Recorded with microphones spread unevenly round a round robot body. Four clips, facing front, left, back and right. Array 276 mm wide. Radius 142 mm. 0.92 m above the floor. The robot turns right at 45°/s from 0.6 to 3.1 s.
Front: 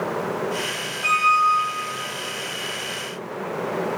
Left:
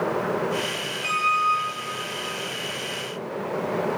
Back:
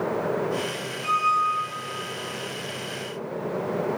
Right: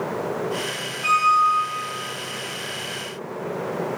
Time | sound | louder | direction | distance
1.0 | a squeak | right 5 dB, front 4 dB | 10° right | 3 m